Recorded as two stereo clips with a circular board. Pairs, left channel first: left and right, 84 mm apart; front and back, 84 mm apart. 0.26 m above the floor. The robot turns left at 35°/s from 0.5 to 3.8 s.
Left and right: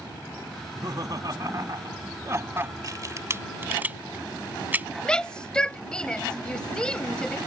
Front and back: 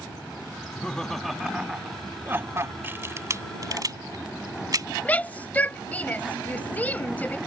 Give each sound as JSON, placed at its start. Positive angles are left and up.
{"t": 0.6, "sound": "laughter", "azimuth_deg": -65}
{"t": 2.8, "sound": "a camera shutter", "azimuth_deg": -120}
{"t": 5.0, "sound": "a shout", "azimuth_deg": 30}